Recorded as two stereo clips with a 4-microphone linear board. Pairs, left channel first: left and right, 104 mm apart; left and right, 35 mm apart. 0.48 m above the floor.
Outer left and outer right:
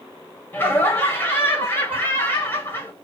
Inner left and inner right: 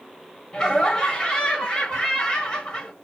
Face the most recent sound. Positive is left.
turn(degrees=20)  # may be behind; listen again after turning